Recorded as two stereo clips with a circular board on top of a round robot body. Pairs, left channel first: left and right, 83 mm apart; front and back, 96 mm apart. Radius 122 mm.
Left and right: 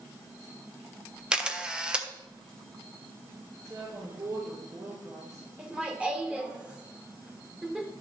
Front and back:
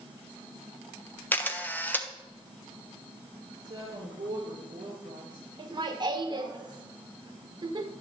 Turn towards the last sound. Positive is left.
turn(degrees=-165)